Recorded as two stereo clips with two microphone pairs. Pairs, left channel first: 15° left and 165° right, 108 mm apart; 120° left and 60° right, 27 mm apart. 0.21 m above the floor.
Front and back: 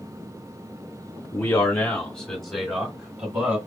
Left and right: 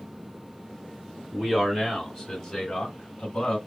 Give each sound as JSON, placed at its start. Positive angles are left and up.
{"t": 1.3, "sound": "a man speaking", "azimuth_deg": -5, "distance_m": 1.4}